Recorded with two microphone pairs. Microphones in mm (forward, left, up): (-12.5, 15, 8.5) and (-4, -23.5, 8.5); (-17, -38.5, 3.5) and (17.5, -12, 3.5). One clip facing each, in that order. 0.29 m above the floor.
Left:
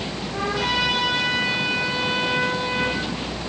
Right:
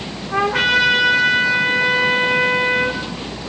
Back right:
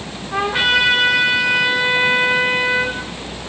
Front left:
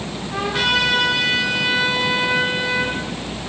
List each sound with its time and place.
0.3 s a trumpet: 70° right, 8 m